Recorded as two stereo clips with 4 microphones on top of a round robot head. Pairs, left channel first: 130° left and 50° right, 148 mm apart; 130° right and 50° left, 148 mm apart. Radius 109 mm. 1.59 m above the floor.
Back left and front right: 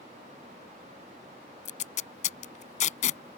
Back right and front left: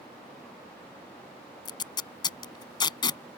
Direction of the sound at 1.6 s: 170° left.